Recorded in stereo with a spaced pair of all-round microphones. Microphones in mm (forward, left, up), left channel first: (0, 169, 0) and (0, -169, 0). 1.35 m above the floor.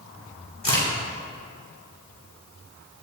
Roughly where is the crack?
Left.